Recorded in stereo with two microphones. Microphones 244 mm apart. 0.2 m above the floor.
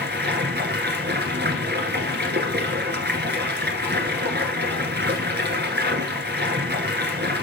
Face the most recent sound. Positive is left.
turn(degrees=-45)  # may be behind; listen again after turning